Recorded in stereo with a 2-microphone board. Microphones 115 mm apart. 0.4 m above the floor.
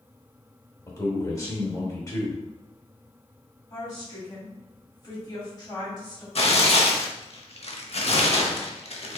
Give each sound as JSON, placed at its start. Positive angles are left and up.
{"t": 0.9, "sound": "a man speaking", "side_deg": 25, "distance_m": 1.2}
{"t": 3.7, "sound": "a woman speaking", "side_deg": 40, "distance_m": 2.0}
{"t": 6.3, "sound": "tearing paper", "side_deg": 60, "distance_m": 0.6}